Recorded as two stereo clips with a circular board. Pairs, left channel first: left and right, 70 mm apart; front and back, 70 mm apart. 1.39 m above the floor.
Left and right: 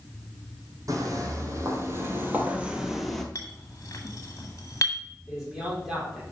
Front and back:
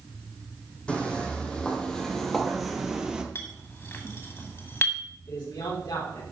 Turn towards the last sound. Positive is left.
turn(degrees=-5)